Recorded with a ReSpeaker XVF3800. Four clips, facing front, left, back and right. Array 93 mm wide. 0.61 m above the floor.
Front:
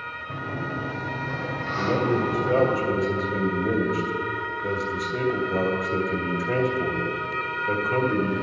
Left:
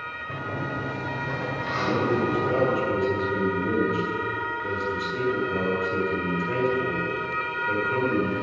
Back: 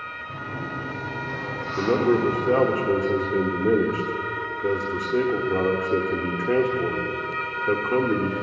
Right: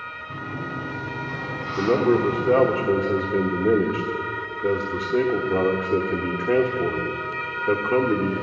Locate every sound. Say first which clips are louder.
0.3 s a sliding door: left 1 dB, front 2 dB; 90° left, 2.5 m
1.8 s a man speaking: right 5 dB, back 3 dB; 125° right, 1.2 m